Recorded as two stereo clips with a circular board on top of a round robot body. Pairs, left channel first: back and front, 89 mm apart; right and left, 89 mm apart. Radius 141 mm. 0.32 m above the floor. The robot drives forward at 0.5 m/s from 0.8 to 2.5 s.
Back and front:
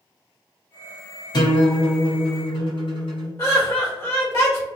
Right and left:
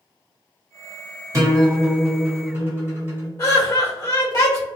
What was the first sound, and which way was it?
A guitar, 145° left.